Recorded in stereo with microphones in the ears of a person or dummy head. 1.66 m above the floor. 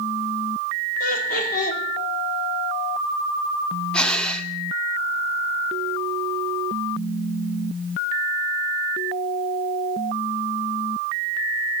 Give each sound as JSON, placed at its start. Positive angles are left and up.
{"t": 1.0, "sound": "laughter", "side_deg": 50, "distance_m": 3.5}
{"t": 3.9, "sound": "breathing", "side_deg": 5, "distance_m": 0.8}